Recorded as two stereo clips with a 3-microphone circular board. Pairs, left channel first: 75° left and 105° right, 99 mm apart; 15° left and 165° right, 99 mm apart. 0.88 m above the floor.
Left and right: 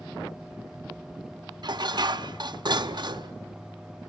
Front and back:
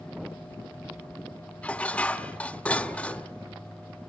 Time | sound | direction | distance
1.6 | dishes clattering | 60° right | 0.8 m